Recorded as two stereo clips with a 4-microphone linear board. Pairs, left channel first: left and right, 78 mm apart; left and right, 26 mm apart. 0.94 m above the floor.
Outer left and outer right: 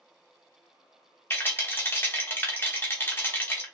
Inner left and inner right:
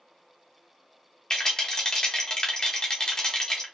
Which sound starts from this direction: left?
A rattle, at 1.3 s.